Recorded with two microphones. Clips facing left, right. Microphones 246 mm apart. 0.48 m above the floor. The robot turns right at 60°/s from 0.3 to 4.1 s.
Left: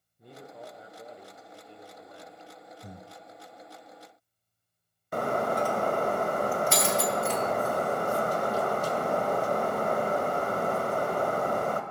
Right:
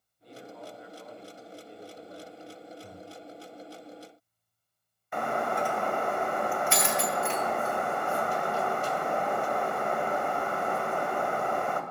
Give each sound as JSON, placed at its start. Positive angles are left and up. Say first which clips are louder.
{"t": 0.2, "sound": "a man speaking", "louder": "right 1 dB", "azimuth_deg": 110, "distance_m": 1.5}
{"t": 2.8, "sound": "breathing", "louder": "right 1 dB", "side_deg": 30, "distance_m": 0.7}
{"t": 5.1, "sound": "breaking glass", "louder": "left 3 dB", "side_deg": 40, "distance_m": 1.5}